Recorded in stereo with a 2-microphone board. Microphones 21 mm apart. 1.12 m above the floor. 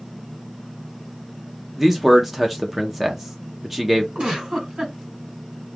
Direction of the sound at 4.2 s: 55° right (ahead or behind).